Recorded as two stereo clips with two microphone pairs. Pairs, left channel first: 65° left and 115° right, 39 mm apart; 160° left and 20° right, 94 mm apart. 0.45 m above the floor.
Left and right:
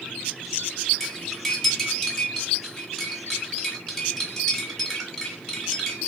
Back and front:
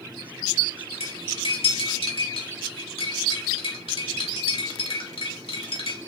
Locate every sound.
1.0 s cutlery clinking: 150° left, 1.6 m